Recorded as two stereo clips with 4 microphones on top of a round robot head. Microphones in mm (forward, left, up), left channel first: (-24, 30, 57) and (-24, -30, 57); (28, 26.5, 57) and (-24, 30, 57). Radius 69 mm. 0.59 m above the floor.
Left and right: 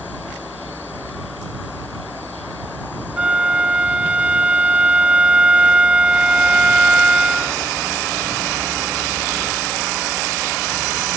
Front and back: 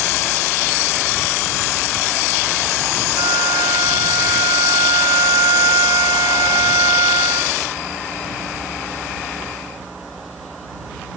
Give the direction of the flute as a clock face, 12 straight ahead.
5 o'clock.